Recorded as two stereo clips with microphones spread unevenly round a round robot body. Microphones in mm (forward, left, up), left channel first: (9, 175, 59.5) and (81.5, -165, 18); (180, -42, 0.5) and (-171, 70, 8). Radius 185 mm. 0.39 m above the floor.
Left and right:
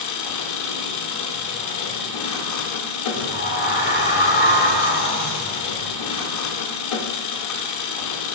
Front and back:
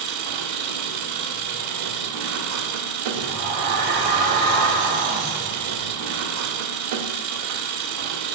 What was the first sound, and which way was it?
An engine running, 135° left.